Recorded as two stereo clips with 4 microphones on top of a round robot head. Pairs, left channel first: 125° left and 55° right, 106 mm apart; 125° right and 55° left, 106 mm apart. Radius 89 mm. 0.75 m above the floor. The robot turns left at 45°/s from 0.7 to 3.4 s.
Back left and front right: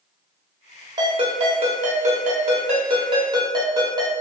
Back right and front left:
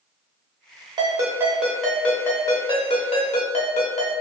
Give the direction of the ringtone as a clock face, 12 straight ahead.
12 o'clock.